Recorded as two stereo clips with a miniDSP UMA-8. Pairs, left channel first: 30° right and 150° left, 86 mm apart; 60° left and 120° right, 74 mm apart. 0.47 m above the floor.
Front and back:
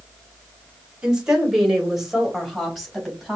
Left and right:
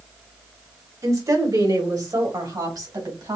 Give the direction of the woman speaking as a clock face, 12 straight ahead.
4 o'clock.